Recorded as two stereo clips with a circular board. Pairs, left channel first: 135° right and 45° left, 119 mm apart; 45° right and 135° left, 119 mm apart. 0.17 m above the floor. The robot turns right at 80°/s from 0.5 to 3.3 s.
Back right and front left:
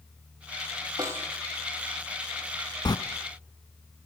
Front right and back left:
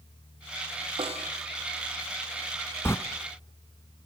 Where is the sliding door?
105° right, 1.1 m; by 3.0 s 100° right, 1.1 m.